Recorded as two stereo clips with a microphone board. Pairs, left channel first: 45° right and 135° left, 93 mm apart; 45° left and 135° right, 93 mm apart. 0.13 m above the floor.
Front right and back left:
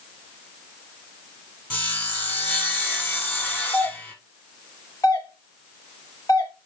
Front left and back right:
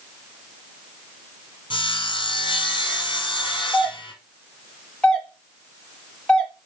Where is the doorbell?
30° right, 2.5 m.